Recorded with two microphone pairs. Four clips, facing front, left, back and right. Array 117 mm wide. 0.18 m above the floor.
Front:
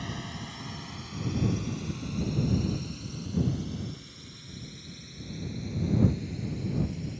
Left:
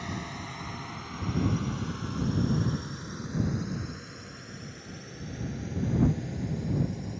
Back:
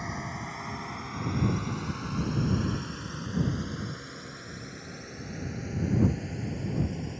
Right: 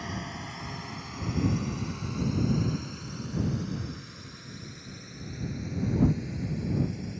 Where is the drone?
175° right; by 7.2 s 160° left.